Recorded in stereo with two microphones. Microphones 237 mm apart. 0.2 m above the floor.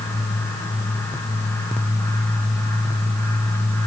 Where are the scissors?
I don't hear scissors.